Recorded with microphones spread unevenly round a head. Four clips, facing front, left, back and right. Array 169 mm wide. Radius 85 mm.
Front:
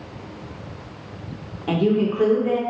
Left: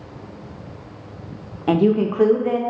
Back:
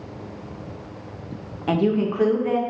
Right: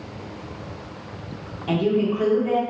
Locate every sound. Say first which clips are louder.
1.7 s a woman speaking: left 4 dB, front 1 dB; 80° left, 0.5 m